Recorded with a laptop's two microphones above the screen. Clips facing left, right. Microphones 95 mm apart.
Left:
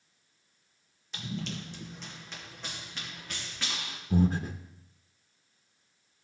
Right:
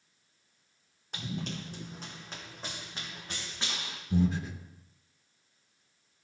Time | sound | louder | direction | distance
1.1 | running footsteps | even | 55° right (ahead or behind) | 2 m
4.1 | breathing | left 2 dB | 40° left (ahead or behind) | 0.9 m